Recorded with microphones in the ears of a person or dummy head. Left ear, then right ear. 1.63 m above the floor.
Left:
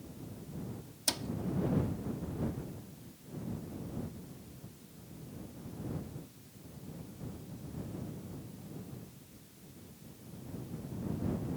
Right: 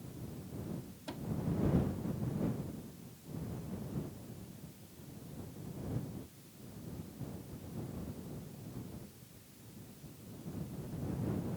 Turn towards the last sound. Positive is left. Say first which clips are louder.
# left 11 dB
turn(degrees=65)  # may be behind; listen again after turning